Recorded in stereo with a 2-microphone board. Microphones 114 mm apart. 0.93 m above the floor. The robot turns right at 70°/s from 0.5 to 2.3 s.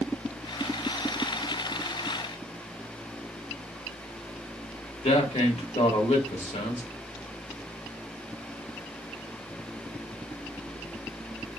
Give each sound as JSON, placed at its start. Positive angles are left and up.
{"t": 5.0, "sound": "a man speaking", "side_deg": 70, "distance_m": 1.5}